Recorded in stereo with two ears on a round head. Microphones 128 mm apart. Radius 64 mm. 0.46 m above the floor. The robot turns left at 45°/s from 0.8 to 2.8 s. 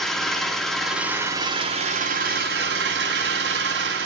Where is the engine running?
5° left, 2 m; by 4.1 s 85° right, 2 m.